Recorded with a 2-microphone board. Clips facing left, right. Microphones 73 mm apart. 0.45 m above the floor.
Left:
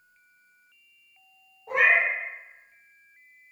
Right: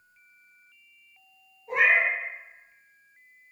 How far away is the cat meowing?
About 1.1 m.